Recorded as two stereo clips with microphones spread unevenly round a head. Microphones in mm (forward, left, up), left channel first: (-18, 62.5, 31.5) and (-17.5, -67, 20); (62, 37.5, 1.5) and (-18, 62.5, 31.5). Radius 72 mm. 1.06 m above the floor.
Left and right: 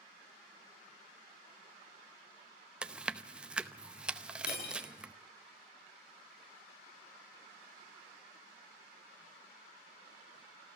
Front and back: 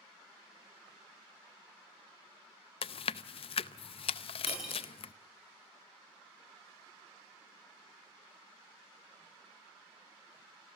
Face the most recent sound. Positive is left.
turn(degrees=80)